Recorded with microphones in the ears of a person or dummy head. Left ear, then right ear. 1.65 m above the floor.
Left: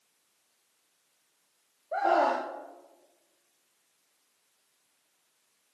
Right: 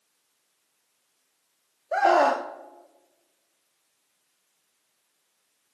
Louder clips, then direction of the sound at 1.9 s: Right 5 dB; 75° right (ahead or behind).